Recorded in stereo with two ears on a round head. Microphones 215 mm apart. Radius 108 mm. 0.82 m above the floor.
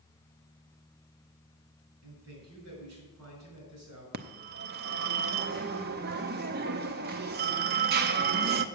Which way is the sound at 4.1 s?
40° right (ahead or behind).